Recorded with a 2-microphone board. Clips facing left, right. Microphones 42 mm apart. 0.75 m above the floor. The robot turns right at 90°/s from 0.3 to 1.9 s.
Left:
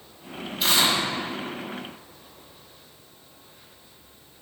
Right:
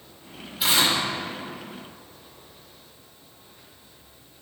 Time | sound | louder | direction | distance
0.6 | tearing paper | even | 170° right | 1.9 m